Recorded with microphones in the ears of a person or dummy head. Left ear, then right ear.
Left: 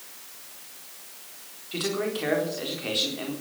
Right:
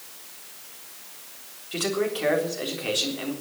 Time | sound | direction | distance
1.7 | a man speaking | 15° right (ahead or behind) | 4 m